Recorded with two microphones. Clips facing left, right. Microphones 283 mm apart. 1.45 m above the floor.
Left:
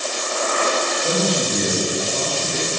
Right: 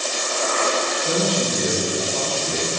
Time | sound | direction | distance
1.0 | a man speaking | 40° left (ahead or behind) | 1.9 m